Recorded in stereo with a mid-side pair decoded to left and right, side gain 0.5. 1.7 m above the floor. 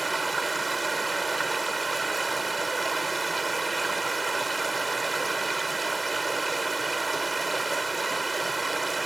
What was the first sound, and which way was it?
Running water, 20° right.